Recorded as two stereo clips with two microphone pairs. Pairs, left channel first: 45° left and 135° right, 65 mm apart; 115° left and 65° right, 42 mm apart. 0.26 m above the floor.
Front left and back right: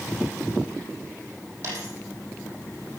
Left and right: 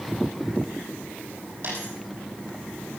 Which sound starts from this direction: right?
A dropped coin, at 1.6 s.